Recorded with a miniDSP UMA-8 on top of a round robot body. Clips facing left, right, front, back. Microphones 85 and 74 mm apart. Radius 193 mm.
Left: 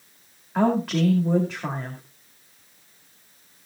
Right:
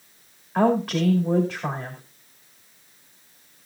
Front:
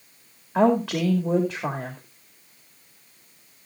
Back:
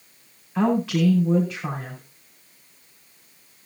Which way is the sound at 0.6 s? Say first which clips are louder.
Right 1 dB, front 1 dB; straight ahead.